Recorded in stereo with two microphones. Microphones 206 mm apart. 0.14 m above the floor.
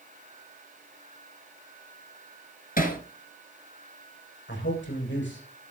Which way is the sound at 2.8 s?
45° left (ahead or behind).